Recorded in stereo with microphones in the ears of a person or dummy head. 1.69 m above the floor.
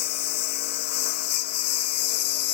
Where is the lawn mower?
55° left (ahead or behind).